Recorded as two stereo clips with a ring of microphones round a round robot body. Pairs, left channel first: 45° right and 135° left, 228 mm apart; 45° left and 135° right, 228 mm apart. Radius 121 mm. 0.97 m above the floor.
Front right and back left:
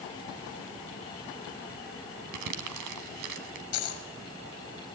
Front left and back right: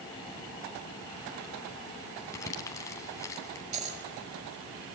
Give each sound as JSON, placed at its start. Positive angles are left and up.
{"t": 2.3, "sound": "crumpling", "azimuth_deg": 120, "distance_m": 3.0}
{"t": 3.7, "sound": "a dropped coin", "azimuth_deg": -75, "distance_m": 5.0}